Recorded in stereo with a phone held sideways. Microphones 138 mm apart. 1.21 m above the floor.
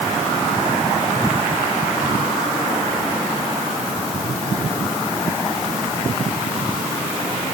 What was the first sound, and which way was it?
Only background noise.